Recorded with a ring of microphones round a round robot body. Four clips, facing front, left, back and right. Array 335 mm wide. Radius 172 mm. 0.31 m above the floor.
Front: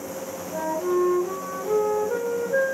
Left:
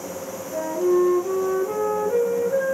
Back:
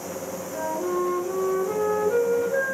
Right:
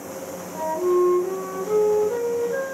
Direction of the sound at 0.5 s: 35° left.